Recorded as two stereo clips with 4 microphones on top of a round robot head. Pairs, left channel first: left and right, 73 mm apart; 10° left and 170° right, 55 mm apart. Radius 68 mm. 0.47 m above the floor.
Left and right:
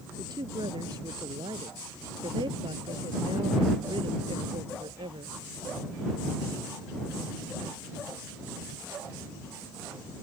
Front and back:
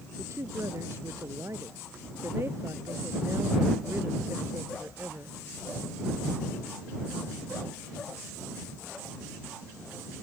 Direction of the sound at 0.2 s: 125° right.